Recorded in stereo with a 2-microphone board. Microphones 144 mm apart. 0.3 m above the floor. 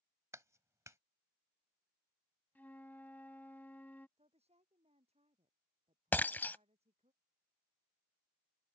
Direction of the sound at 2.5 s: 10° left (ahead or behind).